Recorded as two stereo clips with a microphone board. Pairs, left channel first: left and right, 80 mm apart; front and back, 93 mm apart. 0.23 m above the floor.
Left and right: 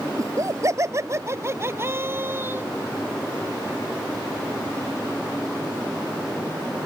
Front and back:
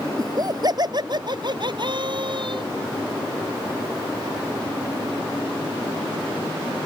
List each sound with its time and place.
0.2 s laughter: 135° right; by 2.6 s 150° right